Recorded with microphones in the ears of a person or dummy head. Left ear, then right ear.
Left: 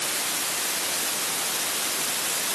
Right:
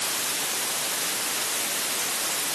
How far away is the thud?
No thud in this recording.